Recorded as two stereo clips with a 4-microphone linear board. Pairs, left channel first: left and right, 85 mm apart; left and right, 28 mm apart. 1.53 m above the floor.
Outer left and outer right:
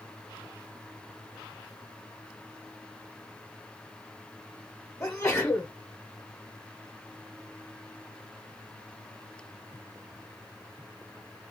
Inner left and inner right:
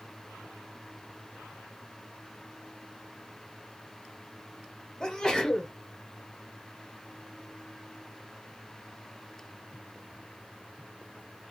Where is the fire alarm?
I don't hear a fire alarm.